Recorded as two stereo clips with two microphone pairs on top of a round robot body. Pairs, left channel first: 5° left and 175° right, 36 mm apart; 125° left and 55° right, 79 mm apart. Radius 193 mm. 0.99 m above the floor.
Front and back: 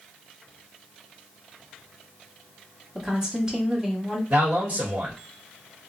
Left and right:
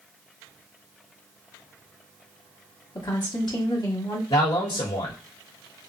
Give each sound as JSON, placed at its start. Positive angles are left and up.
{"t": 3.0, "sound": "a woman speaking", "azimuth_deg": 110, "distance_m": 1.6}
{"t": 4.3, "sound": "a man speaking", "azimuth_deg": 140, "distance_m": 1.3}